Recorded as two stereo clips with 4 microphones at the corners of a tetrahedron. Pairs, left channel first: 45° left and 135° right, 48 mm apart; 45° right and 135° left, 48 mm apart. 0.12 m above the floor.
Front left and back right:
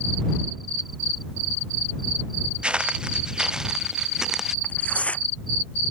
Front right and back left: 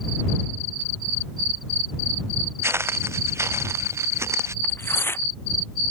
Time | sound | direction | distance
2.6 | footsteps | 160° left | ?
4.6 | tearing paper | 15° right | ?